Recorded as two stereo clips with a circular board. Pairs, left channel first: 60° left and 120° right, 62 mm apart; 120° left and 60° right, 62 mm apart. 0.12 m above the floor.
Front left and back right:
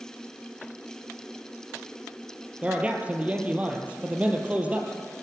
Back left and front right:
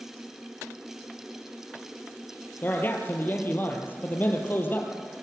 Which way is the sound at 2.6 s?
175° left.